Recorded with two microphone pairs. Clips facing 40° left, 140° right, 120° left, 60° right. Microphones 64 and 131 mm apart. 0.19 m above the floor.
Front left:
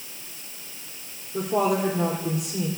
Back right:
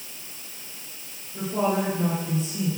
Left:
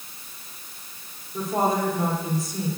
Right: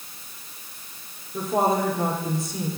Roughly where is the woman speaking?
Ahead.